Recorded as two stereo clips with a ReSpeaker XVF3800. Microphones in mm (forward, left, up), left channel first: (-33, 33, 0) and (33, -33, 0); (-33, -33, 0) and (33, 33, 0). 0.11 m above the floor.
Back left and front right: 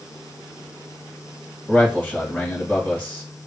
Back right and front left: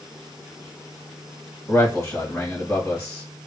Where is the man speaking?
165° right, 1.9 m.